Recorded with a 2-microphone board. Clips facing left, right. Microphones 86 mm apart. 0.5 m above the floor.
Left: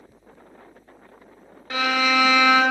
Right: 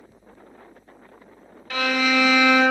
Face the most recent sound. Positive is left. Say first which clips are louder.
# even
turn(degrees=25)  # may be behind; listen again after turning